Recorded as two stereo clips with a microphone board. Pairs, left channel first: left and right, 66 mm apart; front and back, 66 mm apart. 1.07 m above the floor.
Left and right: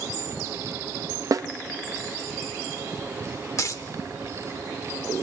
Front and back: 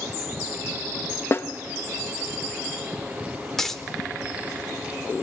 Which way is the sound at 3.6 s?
80° left.